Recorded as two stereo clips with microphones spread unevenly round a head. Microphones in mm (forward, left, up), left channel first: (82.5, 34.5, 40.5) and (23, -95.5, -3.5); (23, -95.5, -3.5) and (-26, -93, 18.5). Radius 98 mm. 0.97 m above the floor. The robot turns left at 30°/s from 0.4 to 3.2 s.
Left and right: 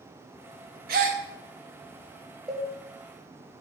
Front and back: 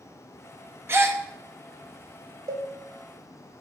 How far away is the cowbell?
About 1.3 m.